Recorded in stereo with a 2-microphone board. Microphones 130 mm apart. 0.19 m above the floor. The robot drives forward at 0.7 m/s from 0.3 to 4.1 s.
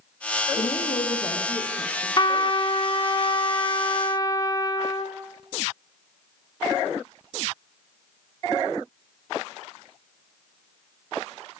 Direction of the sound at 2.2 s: 35° left (ahead or behind).